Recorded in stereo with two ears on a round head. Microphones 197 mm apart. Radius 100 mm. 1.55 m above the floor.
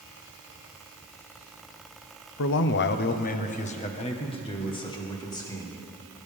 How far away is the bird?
I don't hear a bird.